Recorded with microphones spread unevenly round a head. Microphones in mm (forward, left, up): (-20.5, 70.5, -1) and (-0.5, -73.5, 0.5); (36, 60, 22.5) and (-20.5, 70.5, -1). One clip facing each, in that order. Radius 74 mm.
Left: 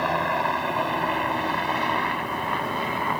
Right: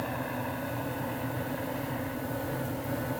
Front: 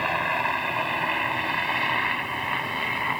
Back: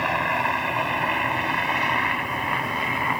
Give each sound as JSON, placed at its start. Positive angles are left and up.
{"t": 0.0, "sound": "a helicopter", "azimuth_deg": 85}